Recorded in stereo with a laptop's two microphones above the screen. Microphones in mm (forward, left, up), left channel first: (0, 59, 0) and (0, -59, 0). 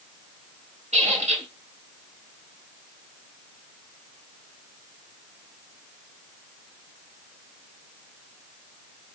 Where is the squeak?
85° right, 2 m.